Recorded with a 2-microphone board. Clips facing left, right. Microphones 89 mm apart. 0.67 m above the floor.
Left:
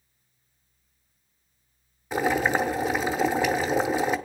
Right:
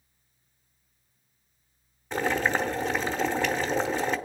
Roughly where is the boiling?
Centre.